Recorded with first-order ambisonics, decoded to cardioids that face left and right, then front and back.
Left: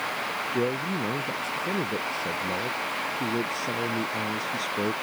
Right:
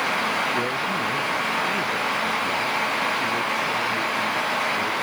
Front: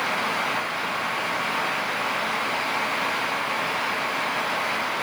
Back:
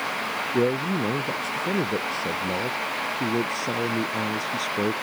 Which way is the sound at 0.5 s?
170° left.